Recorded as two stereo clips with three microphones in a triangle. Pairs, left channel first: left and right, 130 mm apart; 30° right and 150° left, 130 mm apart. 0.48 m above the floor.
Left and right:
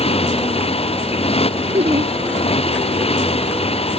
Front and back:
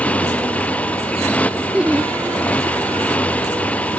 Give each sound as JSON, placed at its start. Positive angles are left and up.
{"t": 0.0, "sound": "a motorcycle", "azimuth_deg": 50}
{"t": 1.7, "sound": "laughter", "azimuth_deg": -125}